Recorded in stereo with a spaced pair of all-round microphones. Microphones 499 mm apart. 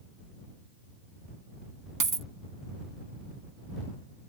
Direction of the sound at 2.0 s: 40° right (ahead or behind).